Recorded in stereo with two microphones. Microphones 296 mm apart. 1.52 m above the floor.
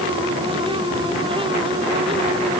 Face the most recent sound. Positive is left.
No sound to turn to.